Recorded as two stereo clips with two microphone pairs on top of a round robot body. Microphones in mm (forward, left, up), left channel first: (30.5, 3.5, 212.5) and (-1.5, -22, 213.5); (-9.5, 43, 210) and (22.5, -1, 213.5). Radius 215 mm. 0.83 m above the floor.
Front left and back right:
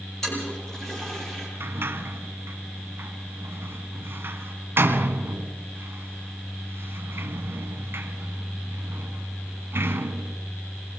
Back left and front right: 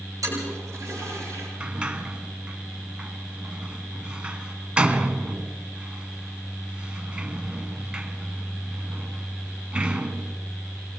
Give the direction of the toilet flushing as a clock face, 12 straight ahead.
1 o'clock.